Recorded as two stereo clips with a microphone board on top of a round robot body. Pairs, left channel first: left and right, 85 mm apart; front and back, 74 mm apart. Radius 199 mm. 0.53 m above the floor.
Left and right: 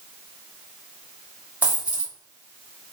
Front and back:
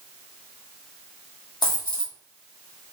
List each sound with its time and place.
1.6 s a dropped coin: 15° right, 1.6 m